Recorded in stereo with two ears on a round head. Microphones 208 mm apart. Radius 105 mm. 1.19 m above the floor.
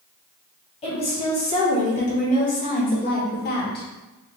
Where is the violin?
I don't hear a violin.